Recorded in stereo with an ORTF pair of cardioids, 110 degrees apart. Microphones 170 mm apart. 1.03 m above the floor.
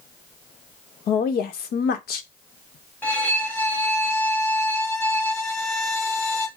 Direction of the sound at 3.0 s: 10° left.